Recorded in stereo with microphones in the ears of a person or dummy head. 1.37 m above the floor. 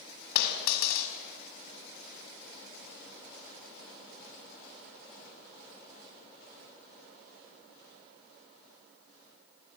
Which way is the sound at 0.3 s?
70° left (ahead or behind).